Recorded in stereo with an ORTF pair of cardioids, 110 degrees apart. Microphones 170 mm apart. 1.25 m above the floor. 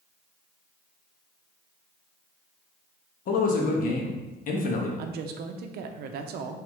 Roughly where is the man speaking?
Ahead left.